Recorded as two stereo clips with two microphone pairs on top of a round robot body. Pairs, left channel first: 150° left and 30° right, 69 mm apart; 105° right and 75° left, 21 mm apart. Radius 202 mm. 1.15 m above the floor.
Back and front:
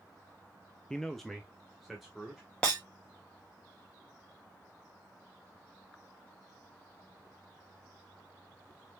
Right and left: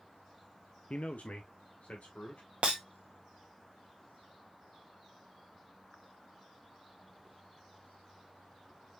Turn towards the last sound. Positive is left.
turn(degrees=85)